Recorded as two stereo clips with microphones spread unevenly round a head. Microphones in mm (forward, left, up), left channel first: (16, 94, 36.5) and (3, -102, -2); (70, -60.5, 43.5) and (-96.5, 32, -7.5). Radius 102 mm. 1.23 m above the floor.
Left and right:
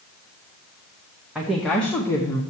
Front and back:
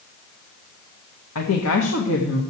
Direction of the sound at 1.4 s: 10° right.